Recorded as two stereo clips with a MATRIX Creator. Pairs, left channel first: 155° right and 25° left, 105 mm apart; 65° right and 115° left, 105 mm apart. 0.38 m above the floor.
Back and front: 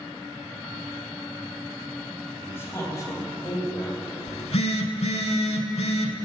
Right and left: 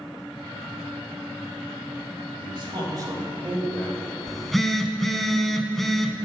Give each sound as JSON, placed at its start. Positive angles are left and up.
{"t": 2.4, "sound": "a man speaking", "azimuth_deg": 135, "distance_m": 2.0}
{"t": 4.3, "sound": "a phone buzzing", "azimuth_deg": -155, "distance_m": 0.6}